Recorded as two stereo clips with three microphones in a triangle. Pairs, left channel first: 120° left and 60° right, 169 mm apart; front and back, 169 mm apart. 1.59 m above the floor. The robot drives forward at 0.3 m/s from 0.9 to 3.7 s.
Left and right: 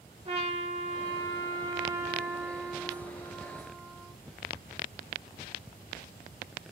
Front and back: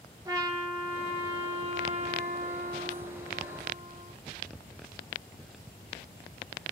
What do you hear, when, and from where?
0.2 s a trumpet: 110° right, 0.8 m; by 4.1 s 145° right, 1.3 m